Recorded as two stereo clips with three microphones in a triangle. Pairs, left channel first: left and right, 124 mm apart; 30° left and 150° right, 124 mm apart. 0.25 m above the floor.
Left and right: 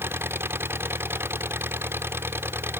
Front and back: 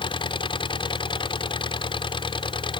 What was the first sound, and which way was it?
An engine running, 20° right.